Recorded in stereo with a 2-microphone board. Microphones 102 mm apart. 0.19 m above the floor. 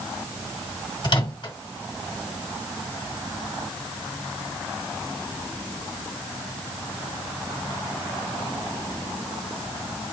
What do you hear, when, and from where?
1.0 s a microwave: 50° left (ahead or behind), 1.6 m